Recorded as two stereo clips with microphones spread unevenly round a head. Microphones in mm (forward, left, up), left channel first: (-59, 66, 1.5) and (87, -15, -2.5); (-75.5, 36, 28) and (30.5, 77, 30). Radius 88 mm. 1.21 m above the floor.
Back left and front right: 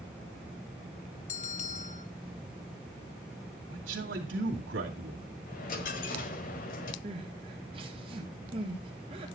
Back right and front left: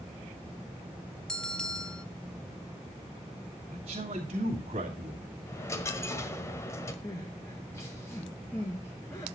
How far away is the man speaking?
About 2.5 m.